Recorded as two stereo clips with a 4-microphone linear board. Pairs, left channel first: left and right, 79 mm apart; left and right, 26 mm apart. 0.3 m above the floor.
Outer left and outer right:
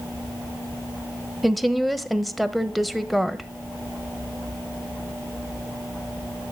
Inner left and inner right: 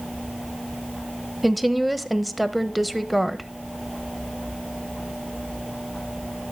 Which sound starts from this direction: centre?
A woman speaking, at 1.4 s.